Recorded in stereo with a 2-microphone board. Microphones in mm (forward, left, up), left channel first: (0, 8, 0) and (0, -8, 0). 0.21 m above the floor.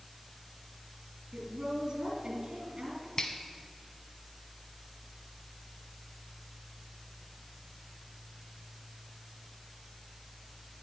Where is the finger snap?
45° left (ahead or behind), 1.3 m.